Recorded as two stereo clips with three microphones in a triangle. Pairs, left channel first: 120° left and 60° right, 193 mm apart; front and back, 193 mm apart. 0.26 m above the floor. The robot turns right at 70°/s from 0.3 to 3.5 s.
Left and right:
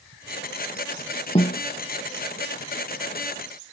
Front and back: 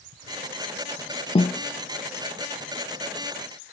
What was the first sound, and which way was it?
A snare drum, 60° left.